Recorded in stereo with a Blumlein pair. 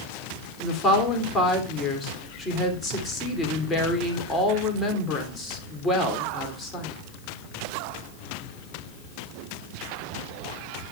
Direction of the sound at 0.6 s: 15° left.